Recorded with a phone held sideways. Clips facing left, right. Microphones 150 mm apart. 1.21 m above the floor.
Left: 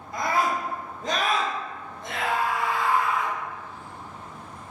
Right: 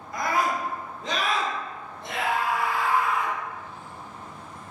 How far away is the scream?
About 0.9 m.